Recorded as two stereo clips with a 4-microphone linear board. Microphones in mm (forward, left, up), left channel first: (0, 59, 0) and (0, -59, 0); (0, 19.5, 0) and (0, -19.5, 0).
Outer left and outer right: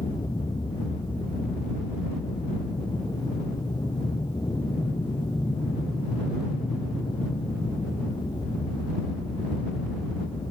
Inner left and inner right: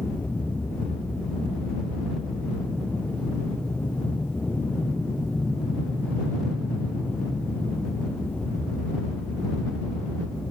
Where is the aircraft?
35° left (ahead or behind); by 10.5 s 40° left (ahead or behind).